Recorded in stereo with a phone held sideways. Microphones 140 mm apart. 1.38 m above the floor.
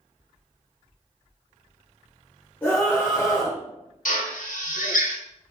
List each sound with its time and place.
2.6 s a scream: 10° left (ahead or behind), 2.5 m
4.0 s a drill: 70° left (ahead or behind), 1.7 m